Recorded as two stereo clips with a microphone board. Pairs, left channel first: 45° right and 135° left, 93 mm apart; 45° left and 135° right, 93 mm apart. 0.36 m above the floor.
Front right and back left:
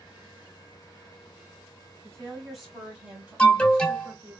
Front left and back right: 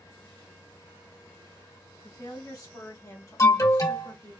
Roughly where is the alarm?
Ahead left.